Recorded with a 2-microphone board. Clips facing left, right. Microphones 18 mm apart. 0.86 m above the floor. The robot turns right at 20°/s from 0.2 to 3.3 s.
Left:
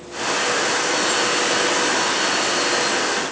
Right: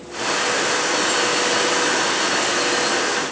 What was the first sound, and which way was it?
Only background noise.